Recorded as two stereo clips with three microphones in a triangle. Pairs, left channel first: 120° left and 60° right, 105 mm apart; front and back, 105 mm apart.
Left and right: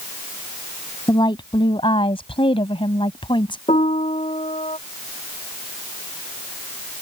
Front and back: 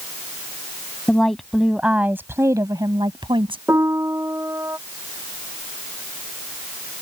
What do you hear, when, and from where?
1.1 s a woman speaking: 80° left; by 3.6 s 155° left
3.7 s a piano: 115° left